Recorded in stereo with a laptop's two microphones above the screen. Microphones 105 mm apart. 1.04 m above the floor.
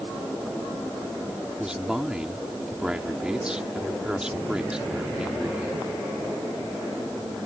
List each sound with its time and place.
1.6 s a man speaking: 10° right (ahead or behind)